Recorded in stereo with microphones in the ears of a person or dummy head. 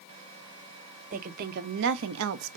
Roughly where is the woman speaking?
Right.